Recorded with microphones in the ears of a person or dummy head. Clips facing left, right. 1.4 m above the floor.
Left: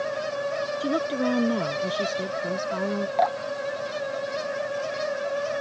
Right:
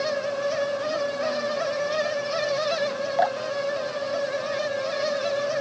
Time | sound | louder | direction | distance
0.8 | a woman speaking | left 1 dB | 85° left | ?
3.2 | dripping | right 2 dB | centre (ahead or behind) | ?